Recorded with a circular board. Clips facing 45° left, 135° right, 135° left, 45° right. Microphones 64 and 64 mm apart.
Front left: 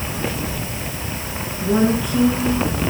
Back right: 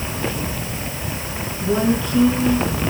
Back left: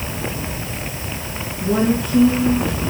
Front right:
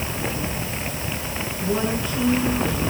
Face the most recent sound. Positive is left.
turn(degrees=120)